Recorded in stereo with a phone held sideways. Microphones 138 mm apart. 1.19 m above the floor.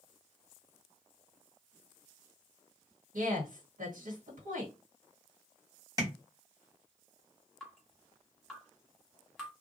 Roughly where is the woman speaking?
Right.